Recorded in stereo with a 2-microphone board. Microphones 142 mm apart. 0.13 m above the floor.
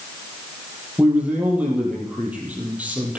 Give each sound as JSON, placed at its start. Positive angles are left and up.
{"t": 1.0, "sound": "a man speaking", "side_deg": -10, "distance_m": 4.5}